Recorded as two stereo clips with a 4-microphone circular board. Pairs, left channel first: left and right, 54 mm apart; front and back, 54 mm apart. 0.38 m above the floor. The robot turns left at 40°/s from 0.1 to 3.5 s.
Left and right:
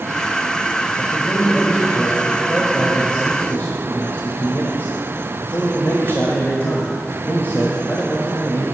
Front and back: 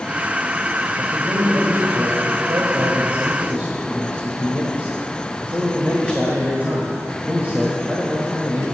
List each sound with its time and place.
1.0 s a man speaking: 130° right, 1.5 m; by 8.6 s 130° left, 1.5 m